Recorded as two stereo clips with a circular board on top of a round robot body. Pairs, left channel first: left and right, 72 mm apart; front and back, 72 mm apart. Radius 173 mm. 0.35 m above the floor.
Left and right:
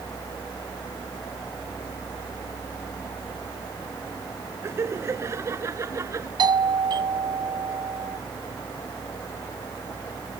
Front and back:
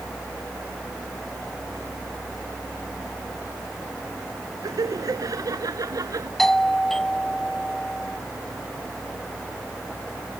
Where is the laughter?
145° right; by 6.3 s 140° right.